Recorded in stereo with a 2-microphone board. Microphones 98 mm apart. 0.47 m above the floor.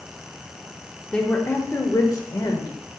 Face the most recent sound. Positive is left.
turn(degrees=50)  # may be behind; listen again after turning